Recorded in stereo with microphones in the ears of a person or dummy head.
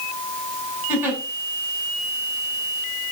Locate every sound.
0.9 s a giggle: 10° right (ahead or behind), 5.5 m